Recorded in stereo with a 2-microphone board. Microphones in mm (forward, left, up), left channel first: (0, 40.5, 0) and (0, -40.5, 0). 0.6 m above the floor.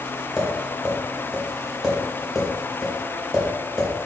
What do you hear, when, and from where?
0.4 s tapping: 5° right (ahead or behind), 2 m